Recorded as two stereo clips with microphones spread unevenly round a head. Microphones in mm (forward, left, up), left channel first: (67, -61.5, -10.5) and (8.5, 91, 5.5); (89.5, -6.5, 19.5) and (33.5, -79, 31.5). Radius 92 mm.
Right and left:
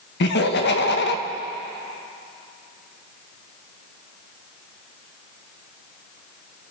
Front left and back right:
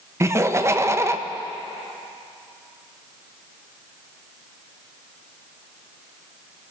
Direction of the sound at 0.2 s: 65° right.